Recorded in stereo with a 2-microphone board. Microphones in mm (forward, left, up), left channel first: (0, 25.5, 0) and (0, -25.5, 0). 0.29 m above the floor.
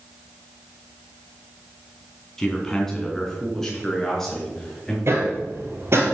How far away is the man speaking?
About 3 m.